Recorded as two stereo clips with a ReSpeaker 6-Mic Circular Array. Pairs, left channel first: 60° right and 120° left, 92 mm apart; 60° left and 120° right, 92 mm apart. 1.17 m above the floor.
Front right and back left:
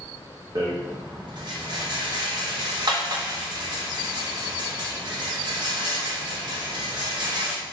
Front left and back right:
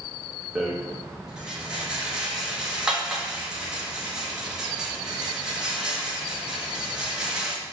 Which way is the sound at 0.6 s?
160° left.